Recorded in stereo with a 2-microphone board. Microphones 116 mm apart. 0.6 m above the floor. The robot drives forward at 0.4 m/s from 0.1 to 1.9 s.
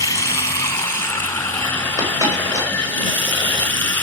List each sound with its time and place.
0.0 s running water: 30° left (ahead or behind), 1.2 m; by 4.0 s 15° left (ahead or behind), 1.8 m
2.0 s a dropped coin: 30° right (ahead or behind), 7.5 m